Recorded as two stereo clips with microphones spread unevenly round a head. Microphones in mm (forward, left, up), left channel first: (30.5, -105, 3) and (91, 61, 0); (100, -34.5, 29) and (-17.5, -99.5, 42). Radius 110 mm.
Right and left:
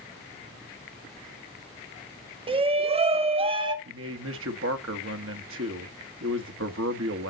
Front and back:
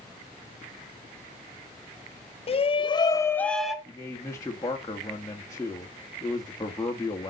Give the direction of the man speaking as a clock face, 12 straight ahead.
9 o'clock.